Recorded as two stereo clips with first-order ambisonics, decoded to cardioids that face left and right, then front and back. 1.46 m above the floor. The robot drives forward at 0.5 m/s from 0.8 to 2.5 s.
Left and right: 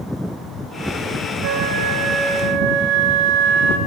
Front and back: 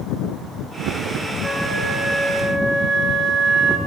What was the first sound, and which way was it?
A flute, 105° right.